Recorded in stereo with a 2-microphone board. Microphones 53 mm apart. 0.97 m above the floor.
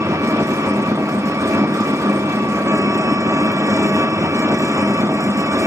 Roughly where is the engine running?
Right.